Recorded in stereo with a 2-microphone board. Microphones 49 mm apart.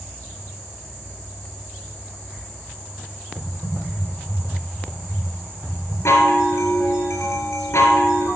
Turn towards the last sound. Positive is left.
turn(degrees=70)  # may be behind; listen again after turning